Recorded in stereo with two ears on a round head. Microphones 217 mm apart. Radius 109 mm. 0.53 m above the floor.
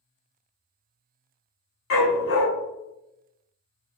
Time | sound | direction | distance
1.9 | a dog barking | 60° left (ahead or behind) | 1.1 m